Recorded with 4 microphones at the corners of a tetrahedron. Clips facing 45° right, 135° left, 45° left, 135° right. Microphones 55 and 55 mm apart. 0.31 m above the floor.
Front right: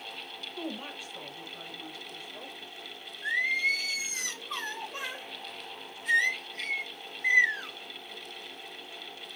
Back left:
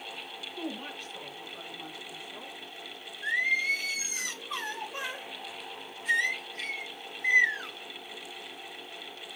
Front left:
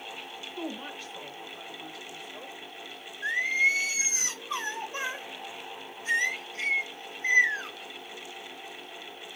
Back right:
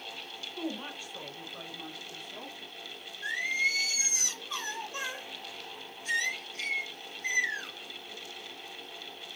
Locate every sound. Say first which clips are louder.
0.6 s a woman speaking: even, even; 35° right, 1.1 m; by 2.6 s 160° right, 1.9 m
3.2 s singing: even, front left 5 dB; 50° left, 0.8 m